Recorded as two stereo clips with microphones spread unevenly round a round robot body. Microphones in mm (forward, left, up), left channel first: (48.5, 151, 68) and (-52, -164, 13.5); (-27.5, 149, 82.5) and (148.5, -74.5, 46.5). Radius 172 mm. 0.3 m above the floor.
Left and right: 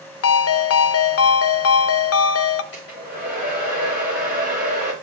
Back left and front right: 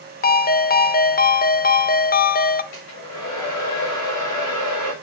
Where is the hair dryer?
105° left, 8 m.